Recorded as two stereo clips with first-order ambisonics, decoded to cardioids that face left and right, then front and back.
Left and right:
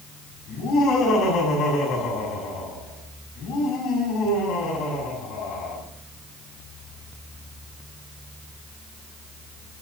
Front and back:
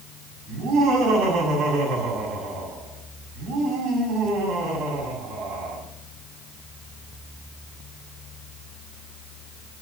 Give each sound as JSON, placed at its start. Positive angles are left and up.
{"t": 0.5, "sound": "laughter", "azimuth_deg": 140, "distance_m": 7.0}